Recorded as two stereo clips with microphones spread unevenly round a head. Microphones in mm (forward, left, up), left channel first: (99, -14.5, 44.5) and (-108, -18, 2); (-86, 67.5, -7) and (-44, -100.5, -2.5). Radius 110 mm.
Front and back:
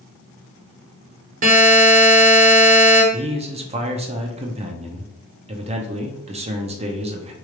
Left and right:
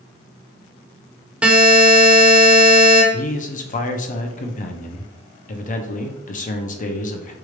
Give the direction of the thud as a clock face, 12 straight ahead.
I don't hear a thud.